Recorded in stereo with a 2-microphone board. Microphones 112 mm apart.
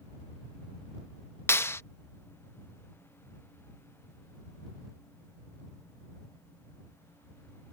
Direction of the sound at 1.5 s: 20° left (ahead or behind).